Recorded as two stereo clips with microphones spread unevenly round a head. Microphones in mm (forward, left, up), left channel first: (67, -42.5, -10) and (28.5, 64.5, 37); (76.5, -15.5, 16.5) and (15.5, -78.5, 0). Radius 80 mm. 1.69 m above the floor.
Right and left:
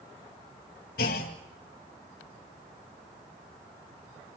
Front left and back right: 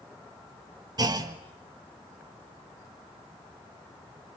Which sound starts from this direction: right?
A clunk, at 1.0 s.